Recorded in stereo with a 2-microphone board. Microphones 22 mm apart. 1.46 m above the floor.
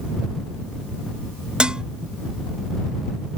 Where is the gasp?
I don't hear a gasp.